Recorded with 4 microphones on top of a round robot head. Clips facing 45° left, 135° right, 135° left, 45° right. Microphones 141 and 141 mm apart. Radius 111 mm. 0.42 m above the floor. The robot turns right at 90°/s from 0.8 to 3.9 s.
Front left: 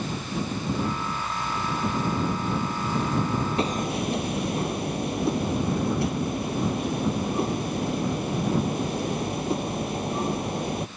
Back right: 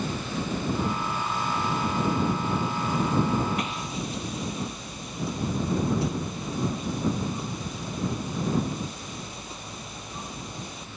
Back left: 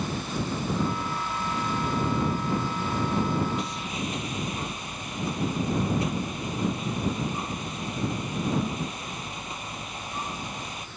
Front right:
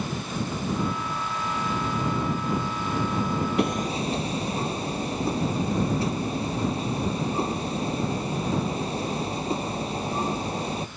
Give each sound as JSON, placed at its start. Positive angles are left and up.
{"t": 3.6, "sound": "hammering", "azimuth_deg": -15}